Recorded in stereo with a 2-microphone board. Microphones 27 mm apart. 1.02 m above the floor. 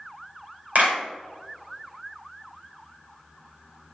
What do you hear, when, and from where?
0.8 s a clap: 80° right, 5.5 m